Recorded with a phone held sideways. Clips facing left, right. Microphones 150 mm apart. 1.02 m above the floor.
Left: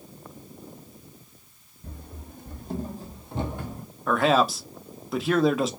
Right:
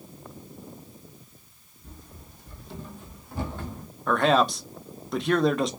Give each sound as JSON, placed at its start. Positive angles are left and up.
{"t": 1.8, "sound": "running footsteps", "side_deg": 65, "distance_m": 2.0}
{"t": 4.1, "sound": "a man speaking", "side_deg": 5, "distance_m": 0.9}